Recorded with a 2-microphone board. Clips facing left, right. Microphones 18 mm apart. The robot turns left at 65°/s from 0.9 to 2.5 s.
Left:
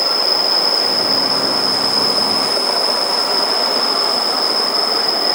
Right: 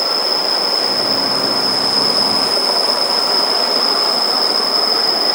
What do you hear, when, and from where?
0.0 s an insect: 50° left, 1.9 m; by 5.4 s 50° right, 1.9 m